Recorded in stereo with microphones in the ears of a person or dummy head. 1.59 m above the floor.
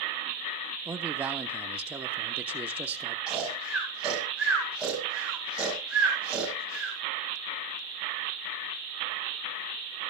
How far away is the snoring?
About 5.5 m.